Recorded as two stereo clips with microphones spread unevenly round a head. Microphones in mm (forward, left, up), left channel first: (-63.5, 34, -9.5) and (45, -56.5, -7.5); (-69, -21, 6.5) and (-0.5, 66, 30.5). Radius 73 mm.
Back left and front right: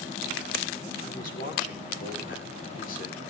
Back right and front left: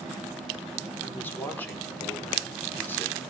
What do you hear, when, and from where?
1.0 s a man speaking: 160° left, 4.5 m